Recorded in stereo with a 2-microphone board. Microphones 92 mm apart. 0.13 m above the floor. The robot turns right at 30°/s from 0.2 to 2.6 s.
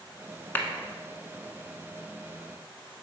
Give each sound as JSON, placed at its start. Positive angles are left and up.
{"t": 0.6, "sound": "a clap", "side_deg": 25, "distance_m": 0.9}